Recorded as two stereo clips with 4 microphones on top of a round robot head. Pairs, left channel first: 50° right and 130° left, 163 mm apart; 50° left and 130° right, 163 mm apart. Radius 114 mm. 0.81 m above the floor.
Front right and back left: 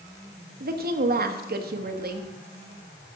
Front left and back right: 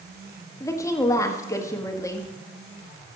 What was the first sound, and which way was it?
A woman speaking, 120° left.